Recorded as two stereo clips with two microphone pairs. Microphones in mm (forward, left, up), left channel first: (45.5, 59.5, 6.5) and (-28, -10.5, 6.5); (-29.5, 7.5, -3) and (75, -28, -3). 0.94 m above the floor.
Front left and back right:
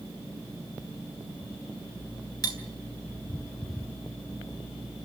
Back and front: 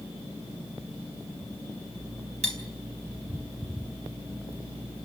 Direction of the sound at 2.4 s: 5° right.